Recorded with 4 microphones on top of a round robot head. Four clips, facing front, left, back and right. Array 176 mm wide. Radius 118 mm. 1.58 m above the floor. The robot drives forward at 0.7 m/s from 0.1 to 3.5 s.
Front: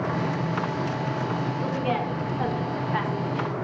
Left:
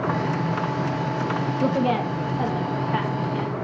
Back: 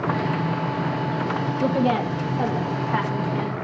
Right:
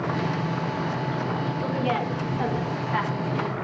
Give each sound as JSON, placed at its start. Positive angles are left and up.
{"t": 1.6, "sound": "a woman speaking", "azimuth_deg": 130, "distance_m": 1.0}